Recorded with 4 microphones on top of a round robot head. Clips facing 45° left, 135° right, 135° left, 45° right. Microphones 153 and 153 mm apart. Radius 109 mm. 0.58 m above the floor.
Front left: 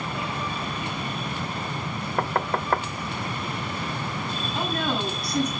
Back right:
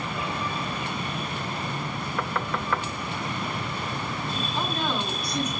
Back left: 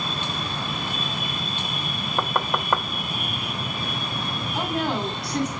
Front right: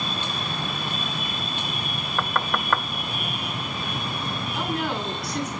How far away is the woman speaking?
About 6 m.